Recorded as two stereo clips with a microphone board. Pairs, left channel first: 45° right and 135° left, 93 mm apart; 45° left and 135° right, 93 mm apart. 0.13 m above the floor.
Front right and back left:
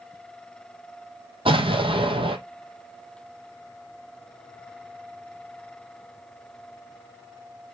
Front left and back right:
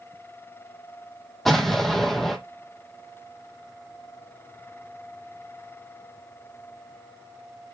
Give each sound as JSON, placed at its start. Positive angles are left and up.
{"t": 1.4, "sound": "an explosion", "azimuth_deg": 130, "distance_m": 0.9}